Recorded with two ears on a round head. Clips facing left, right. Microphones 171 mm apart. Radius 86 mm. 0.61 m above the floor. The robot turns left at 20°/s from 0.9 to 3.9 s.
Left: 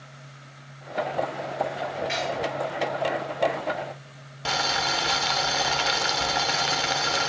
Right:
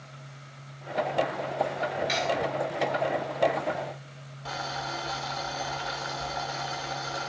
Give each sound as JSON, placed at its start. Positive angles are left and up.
{"t": 2.1, "sound": "cutlery clinking", "side_deg": -50, "distance_m": 5.0}
{"t": 4.5, "sound": "boiling", "side_deg": 85, "distance_m": 0.8}